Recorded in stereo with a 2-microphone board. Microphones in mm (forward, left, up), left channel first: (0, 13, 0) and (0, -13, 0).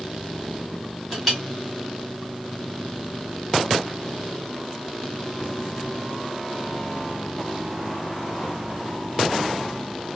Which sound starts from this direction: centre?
A clink, at 1.1 s.